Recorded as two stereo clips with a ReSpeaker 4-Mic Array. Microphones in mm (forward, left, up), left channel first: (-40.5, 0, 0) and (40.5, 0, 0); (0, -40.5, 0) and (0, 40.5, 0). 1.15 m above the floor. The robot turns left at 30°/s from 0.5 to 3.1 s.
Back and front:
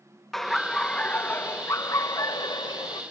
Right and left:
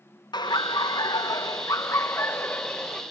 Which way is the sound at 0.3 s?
95° right.